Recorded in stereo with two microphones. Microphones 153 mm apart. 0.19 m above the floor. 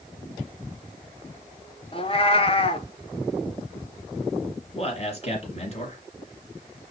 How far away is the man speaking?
About 3 m.